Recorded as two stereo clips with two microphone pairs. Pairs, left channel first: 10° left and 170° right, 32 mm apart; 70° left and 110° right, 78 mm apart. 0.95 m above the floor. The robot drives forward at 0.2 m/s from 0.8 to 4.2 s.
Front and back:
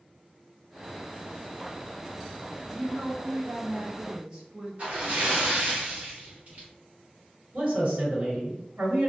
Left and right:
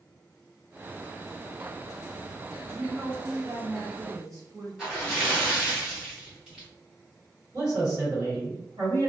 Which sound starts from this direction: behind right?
A man speaking, at 7.5 s.